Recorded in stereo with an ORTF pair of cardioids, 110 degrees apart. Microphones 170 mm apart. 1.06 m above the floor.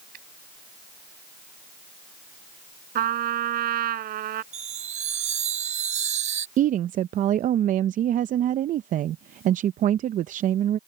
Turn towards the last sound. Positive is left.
turn(degrees=-50)